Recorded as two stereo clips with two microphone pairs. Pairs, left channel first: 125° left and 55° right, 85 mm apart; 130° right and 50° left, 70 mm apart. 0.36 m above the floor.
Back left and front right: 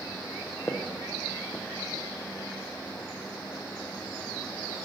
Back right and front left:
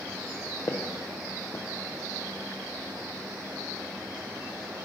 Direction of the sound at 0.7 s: 155° right.